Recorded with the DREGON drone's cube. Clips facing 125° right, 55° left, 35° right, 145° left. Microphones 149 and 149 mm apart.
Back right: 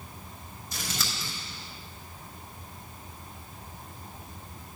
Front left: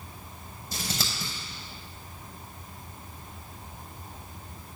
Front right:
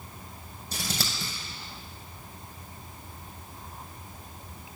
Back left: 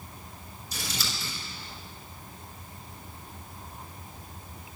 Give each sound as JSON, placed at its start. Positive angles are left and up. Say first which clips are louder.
{"t": 0.7, "sound": "scissors", "louder": "front left 2 dB, front right 3 dB", "azimuth_deg": -5, "distance_m": 6.5}